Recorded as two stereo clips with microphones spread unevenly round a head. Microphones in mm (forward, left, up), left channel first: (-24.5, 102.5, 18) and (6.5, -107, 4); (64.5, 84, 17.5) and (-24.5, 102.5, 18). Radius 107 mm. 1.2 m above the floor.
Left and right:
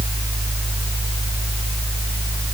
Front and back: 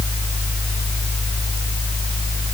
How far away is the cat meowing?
No cat meowing in this recording.